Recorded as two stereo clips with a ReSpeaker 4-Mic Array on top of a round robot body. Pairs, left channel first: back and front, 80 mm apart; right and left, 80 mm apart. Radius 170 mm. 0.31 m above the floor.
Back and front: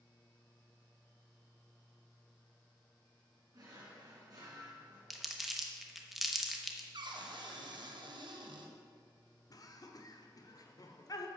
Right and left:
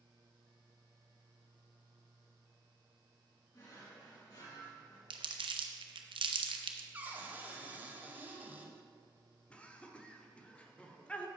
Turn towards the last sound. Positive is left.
turn(degrees=-160)